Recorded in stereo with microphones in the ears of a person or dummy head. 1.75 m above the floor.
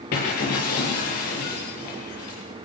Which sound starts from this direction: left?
Breaking glass, at 0.1 s.